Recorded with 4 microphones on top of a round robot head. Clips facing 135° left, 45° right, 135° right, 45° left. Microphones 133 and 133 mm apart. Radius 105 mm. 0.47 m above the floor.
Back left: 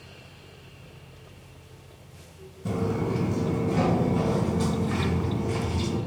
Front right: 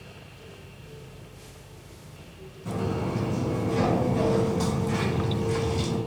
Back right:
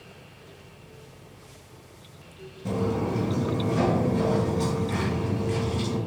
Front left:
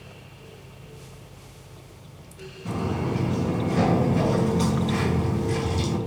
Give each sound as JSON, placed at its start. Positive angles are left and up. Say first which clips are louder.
{"t": 2.6, "sound": "footsteps", "louder": "back left 2 dB, back right 1 dB", "azimuth_deg": 160, "distance_m": 0.7}